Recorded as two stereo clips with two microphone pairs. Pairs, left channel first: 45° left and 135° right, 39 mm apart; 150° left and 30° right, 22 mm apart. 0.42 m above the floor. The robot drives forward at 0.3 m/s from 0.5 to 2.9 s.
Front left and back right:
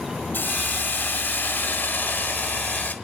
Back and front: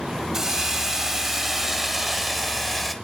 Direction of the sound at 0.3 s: 35° left.